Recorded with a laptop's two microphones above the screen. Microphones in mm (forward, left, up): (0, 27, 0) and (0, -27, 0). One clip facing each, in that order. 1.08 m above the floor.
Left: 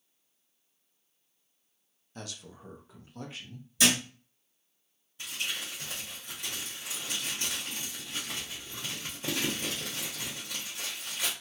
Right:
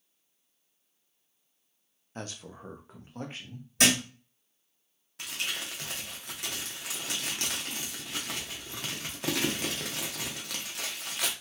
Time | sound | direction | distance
2.1 | a man speaking | 30° right (ahead or behind) | 0.5 m
3.8 | a thud | 60° right (ahead or behind) | 1.8 m
5.2 | crumpling | 65° right (ahead or behind) | 0.9 m